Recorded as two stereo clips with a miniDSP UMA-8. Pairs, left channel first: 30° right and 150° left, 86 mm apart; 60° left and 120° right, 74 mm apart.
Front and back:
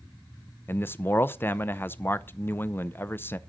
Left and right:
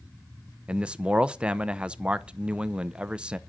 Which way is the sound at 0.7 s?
60° right.